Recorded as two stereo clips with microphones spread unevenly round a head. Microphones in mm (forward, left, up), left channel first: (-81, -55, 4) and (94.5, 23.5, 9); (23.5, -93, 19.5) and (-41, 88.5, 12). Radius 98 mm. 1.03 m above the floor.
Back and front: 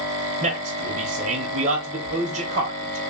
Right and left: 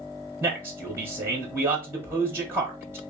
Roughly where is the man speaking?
Ahead left.